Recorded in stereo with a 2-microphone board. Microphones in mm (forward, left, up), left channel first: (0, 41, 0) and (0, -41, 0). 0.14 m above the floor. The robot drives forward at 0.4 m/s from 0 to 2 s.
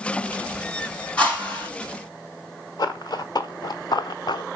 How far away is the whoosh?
About 6 m.